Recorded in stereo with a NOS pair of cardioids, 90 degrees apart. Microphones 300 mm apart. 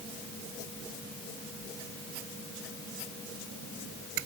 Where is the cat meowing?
I don't hear a cat meowing.